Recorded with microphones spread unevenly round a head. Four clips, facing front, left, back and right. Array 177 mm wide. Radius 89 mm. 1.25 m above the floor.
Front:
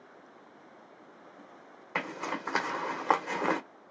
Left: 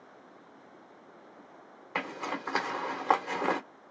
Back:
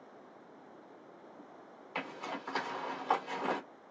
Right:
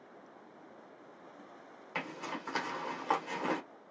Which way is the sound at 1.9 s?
35° left.